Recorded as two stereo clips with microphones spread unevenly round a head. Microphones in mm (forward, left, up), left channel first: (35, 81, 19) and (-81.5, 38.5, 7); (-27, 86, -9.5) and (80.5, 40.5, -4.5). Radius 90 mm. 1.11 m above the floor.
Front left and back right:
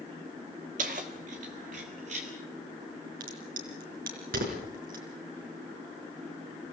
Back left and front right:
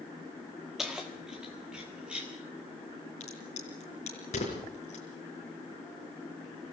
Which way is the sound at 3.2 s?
150° right.